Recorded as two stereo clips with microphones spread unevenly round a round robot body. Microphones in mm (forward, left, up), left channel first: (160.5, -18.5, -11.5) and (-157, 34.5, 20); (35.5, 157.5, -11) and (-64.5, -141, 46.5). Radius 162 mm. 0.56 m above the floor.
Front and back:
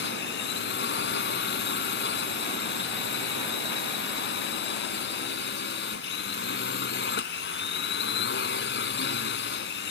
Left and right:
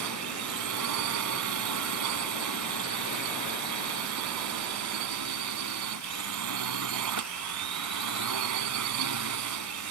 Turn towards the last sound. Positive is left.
turn(degrees=-70)